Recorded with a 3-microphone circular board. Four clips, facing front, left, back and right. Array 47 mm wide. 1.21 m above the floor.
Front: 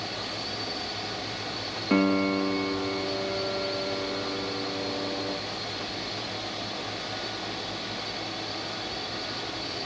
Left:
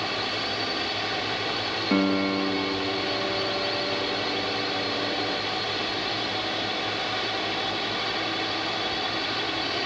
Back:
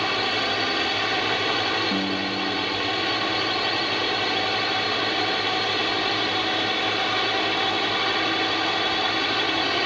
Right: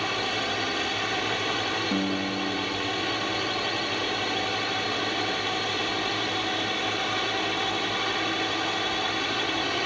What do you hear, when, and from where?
0.0 s a drone: 170° right
1.9 s a piano: 45° left